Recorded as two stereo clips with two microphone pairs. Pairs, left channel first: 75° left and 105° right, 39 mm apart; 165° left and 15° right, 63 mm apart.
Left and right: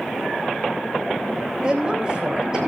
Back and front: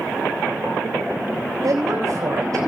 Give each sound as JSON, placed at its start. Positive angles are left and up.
{"t": 1.6, "sound": "a woman speaking", "azimuth_deg": -40, "distance_m": 4.0}